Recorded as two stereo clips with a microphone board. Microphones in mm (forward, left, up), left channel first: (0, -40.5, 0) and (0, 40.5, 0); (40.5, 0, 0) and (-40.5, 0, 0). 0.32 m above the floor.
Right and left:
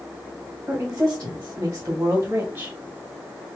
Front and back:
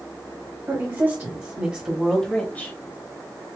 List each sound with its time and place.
0.7 s a woman speaking: 140° left, 1.7 m; by 2.8 s 40° left, 1.1 m